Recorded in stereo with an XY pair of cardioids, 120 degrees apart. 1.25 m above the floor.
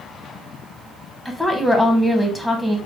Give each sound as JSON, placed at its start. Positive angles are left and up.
{"t": 1.2, "sound": "a woman speaking", "azimuth_deg": 5, "distance_m": 0.9}